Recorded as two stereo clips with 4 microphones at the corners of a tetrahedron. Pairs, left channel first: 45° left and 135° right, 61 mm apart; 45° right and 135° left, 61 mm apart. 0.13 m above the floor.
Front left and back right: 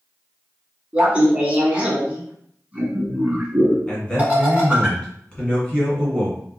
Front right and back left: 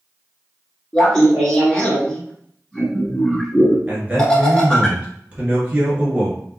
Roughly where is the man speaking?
Left.